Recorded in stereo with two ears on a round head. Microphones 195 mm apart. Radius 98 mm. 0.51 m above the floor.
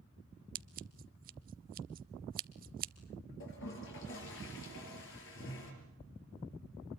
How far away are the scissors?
About 0.6 m.